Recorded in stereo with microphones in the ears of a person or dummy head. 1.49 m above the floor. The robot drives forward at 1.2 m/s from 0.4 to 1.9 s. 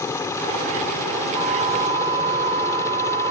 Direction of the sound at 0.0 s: 20° left (ahead or behind).